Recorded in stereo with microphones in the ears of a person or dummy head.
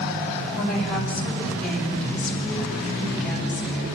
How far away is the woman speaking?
About 8 m.